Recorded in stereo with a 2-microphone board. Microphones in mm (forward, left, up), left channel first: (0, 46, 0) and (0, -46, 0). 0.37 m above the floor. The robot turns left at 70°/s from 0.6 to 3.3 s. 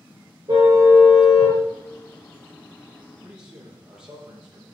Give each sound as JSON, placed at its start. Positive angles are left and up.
{"t": 0.5, "sound": "a car horn", "azimuth_deg": -130, "distance_m": 5.5}
{"t": 3.2, "sound": "a man speaking", "side_deg": 0, "distance_m": 10.0}